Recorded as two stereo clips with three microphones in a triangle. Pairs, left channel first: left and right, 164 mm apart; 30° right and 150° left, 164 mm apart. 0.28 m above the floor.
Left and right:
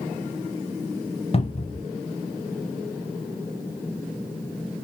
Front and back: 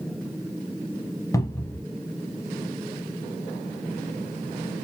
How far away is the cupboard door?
About 0.6 m.